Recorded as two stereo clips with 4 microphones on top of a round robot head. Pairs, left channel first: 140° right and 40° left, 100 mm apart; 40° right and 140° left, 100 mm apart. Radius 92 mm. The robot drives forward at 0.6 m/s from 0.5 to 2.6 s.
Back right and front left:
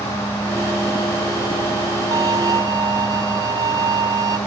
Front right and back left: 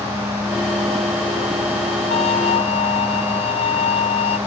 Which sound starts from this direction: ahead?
A violin, at 2.1 s.